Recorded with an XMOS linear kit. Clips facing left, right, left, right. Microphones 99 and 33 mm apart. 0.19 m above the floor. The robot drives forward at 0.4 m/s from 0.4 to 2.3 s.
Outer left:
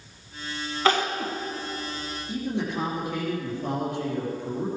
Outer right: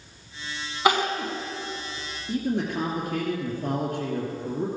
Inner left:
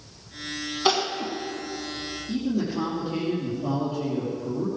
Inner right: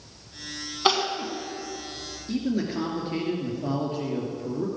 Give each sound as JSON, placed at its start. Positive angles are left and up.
{"t": 0.8, "sound": "crying", "side_deg": -15, "distance_m": 1.6}
{"t": 2.3, "sound": "a man speaking", "side_deg": -50, "distance_m": 3.0}